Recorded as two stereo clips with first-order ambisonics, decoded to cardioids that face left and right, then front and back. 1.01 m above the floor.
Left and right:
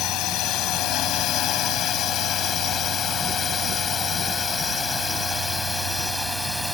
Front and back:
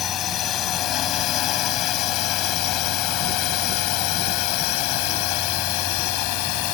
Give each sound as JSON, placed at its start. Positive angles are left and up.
{"t": 0.0, "sound": "a drone", "azimuth_deg": 50}